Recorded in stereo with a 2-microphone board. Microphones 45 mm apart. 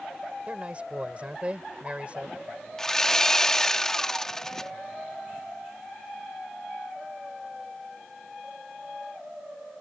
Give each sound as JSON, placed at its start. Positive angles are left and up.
{"t": 0.5, "sound": "a man speaking", "side_deg": -30}
{"t": 2.8, "sound": "sawing", "side_deg": 10}